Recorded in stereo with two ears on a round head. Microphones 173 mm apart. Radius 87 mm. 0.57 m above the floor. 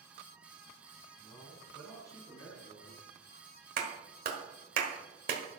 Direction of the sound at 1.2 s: 5° left (ahead or behind).